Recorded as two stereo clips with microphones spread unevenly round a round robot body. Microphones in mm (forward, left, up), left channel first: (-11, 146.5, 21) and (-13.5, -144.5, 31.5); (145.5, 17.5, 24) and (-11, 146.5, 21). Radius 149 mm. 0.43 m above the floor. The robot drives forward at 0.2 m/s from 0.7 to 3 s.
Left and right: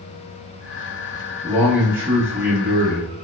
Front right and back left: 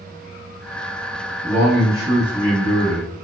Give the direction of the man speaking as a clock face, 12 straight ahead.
6 o'clock.